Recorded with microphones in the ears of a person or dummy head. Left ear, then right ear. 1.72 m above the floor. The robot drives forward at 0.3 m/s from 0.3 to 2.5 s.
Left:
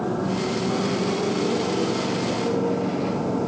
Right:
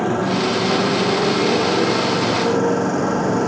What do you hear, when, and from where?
0.0 s a motorcycle: 75° right (ahead or behind); by 3.5 s 60° right (ahead or behind)